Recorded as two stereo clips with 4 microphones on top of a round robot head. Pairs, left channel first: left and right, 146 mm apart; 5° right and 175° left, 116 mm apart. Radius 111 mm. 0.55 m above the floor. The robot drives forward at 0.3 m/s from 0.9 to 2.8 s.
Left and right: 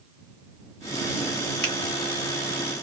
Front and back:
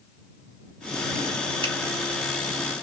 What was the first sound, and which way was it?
A finger snap, 165° left.